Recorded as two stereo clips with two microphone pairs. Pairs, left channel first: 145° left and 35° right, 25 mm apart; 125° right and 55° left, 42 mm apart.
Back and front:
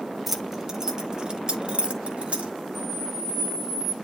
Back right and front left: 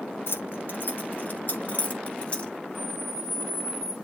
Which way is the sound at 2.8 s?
120° right.